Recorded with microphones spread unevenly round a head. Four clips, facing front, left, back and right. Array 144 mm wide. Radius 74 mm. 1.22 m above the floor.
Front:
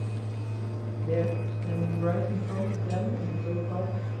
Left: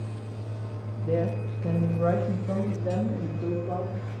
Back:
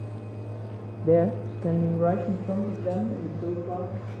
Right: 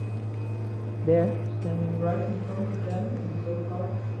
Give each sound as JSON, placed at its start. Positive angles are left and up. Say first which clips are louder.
{"t": 1.0, "sound": "a woman speaking", "louder": "right 5 dB, back 8 dB", "azimuth_deg": -150, "distance_m": 1.0}